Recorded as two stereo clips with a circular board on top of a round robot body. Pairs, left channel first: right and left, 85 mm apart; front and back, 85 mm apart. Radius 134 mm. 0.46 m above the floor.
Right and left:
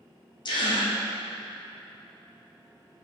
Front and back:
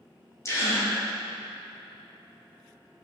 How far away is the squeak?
I don't hear a squeak.